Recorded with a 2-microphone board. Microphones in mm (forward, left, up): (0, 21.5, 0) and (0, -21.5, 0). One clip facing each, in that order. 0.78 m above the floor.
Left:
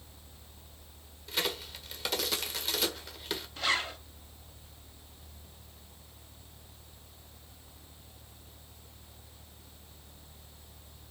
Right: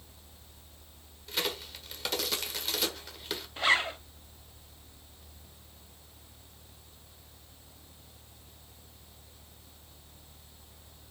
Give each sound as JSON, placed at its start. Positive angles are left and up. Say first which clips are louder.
{"t": 1.3, "sound": "a crack", "louder": "even", "side_deg": 0, "distance_m": 1.5}
{"t": 3.6, "sound": "a zipper", "louder": "right 5 dB", "side_deg": -25, "distance_m": 0.7}